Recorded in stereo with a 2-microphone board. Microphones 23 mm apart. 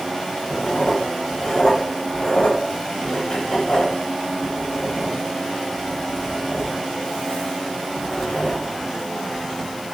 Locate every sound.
0.5 s writing: 60° left (ahead or behind), 3 m